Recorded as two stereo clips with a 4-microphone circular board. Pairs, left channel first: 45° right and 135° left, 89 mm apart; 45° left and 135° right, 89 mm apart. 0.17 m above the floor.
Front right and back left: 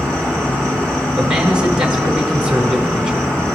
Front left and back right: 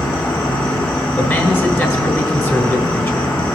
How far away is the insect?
About 2.5 m.